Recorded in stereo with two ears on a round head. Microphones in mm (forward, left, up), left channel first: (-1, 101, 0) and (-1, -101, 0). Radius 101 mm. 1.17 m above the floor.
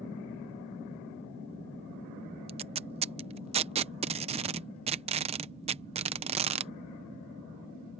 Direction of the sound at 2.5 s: 25° right (ahead or behind).